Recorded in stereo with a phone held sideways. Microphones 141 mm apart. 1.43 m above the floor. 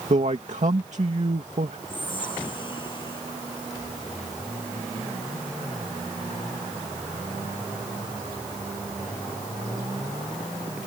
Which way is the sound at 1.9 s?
35° left (ahead or behind).